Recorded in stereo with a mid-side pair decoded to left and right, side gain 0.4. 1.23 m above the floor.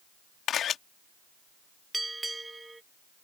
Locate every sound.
0.5 s a camera shutter: 70° left
1.9 s a bell: 15° right